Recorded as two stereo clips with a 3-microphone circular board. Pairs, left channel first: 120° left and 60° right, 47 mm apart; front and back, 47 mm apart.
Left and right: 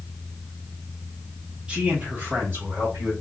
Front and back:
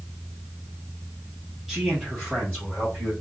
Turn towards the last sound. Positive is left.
turn(degrees=-70)